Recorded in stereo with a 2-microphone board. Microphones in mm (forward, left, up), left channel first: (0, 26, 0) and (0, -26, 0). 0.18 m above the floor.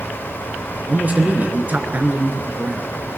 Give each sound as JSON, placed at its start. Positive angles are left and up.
{"t": 0.9, "sound": "a man speaking", "side_deg": -35, "distance_m": 3.0}